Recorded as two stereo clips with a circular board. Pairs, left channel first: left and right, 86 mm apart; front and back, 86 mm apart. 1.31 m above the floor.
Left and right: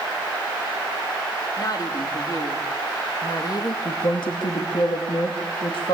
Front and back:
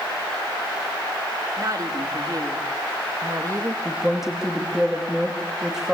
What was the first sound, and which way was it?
A woman speaking, 135° left.